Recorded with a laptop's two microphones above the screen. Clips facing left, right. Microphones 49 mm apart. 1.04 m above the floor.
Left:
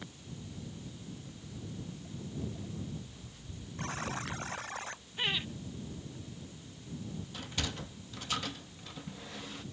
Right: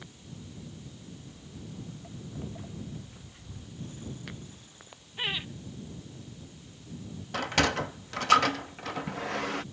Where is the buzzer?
85° left.